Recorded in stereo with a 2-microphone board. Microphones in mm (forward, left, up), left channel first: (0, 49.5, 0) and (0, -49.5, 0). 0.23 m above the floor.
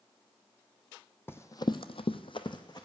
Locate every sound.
1.3 s running footsteps: 25° left (ahead or behind), 0.6 m; by 2.9 s 45° left (ahead or behind), 1.0 m